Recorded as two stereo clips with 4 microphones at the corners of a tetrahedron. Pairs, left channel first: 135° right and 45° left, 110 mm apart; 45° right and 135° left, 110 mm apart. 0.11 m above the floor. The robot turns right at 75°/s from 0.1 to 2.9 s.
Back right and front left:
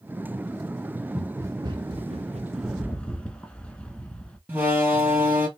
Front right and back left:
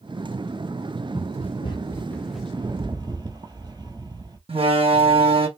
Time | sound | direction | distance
1.1 | running footsteps | 40° right | 2 m
2.5 | a rattle | 120° left | 0.9 m
4.5 | a door slam | 115° left | 2 m